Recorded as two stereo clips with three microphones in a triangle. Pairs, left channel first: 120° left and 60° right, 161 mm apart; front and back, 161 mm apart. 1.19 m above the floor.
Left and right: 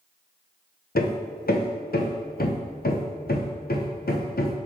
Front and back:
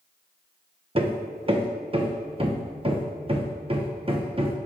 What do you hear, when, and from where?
0.9 s hammering: 130° left, 0.6 m